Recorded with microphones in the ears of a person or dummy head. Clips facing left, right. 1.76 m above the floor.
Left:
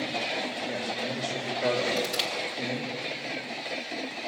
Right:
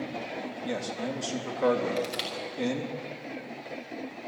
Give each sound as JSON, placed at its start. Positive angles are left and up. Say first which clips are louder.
{"t": 0.6, "sound": "a man speaking", "louder": "even", "side_deg": -75, "distance_m": 3.5}
{"t": 2.0, "sound": "crushing", "louder": "left 1 dB", "side_deg": 0, "distance_m": 1.5}